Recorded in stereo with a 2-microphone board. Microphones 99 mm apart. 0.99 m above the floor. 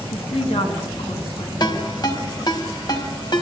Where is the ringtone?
45° left (ahead or behind), 5 m.